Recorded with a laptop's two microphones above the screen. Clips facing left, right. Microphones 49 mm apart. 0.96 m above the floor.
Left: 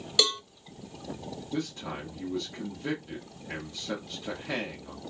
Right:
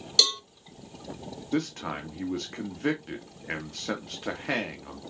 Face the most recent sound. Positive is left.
turn(degrees=-65)  # may be behind; listen again after turning